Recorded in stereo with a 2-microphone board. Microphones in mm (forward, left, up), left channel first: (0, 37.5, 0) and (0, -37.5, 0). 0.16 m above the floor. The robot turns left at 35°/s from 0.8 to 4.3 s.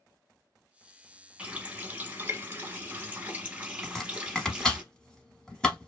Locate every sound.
1.4 s a running tap: 15° right (ahead or behind), 0.8 m
3.8 s chopping: 5° left (ahead or behind), 0.8 m; by 5.9 s 10° left (ahead or behind), 0.8 m